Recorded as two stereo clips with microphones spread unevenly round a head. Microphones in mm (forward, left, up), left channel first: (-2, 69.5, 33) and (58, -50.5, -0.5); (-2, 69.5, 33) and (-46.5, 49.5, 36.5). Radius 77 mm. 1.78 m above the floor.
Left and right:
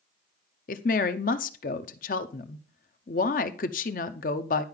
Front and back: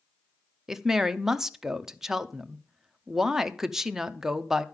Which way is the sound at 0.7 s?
125° left.